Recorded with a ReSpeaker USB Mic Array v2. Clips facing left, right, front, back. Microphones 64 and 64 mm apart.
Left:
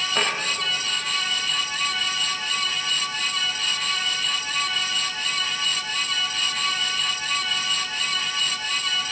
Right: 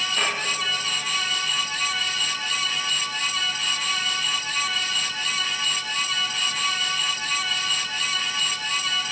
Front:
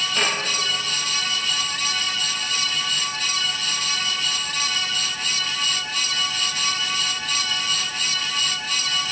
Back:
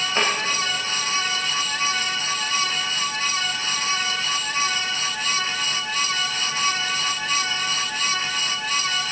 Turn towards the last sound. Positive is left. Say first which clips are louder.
# left 2 dB, back 2 dB
turn(degrees=125)